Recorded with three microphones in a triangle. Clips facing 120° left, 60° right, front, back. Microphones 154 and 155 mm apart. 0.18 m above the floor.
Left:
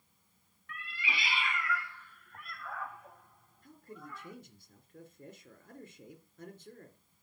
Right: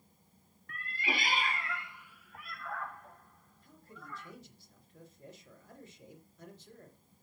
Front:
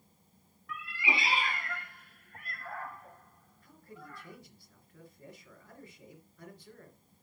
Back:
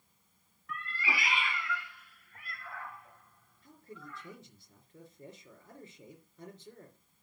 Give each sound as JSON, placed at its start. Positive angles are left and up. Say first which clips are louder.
{"t": 0.7, "sound": "a cat meowing", "louder": "right 4 dB, front 2 dB", "azimuth_deg": -90, "distance_m": 0.7}
{"t": 3.6, "sound": "a man speaking", "louder": "left 4 dB, back 1 dB", "azimuth_deg": 120, "distance_m": 3.0}